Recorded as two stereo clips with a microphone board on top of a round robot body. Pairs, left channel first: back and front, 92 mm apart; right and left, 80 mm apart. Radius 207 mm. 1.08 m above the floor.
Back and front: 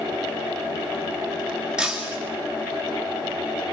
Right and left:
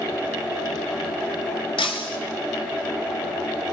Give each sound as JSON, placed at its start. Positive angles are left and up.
{"t": 1.8, "sound": "breaking glass", "azimuth_deg": -85, "distance_m": 1.9}